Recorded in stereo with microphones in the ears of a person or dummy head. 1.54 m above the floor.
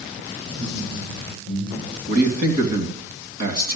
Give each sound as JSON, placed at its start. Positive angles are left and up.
{"t": 0.5, "sound": "laughter", "side_deg": -45, "distance_m": 7.0}
{"t": 2.1, "sound": "a man speaking", "side_deg": -55, "distance_m": 2.5}